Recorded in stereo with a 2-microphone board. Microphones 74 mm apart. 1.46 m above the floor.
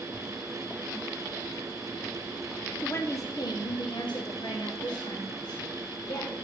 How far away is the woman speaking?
About 0.9 m.